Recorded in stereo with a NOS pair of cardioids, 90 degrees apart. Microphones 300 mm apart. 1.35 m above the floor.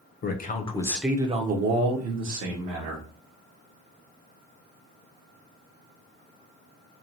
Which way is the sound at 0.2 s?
35° left.